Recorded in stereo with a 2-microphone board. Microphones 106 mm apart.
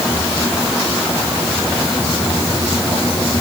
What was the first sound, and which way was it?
Only background noise.